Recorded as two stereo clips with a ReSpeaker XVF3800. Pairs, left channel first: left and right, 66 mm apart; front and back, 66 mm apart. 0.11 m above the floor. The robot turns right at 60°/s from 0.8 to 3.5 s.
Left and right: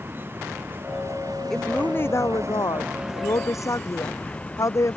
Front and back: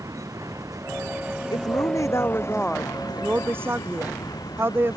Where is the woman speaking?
5° left; by 5.0 s 125° left.